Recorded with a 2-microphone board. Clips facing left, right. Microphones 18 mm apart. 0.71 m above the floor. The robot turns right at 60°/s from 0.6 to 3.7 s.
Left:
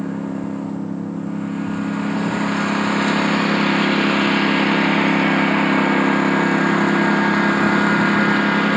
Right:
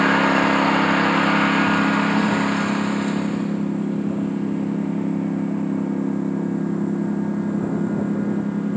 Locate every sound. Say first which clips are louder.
0.0 s a lawn mower: right 9 dB; 110° right; by 8.8 s 75° left